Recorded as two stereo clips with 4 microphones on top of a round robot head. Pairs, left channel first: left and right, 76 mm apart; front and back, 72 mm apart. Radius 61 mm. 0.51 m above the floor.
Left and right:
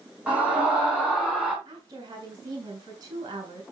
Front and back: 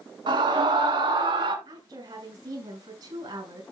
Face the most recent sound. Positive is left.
turn(degrees=-135)